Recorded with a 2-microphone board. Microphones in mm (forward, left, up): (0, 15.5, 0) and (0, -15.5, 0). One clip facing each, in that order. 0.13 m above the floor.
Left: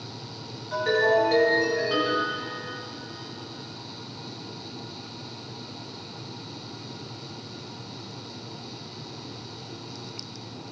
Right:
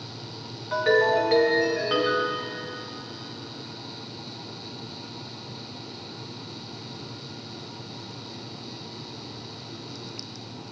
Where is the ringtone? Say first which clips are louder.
Right 1 dB; 20° right (ahead or behind), 5 m.